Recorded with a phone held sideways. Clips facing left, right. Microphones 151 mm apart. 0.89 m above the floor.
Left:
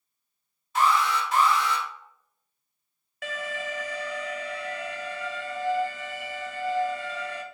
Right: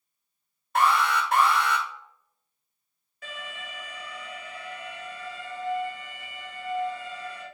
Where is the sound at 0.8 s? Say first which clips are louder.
Even; 60° right (ahead or behind), 0.9 m.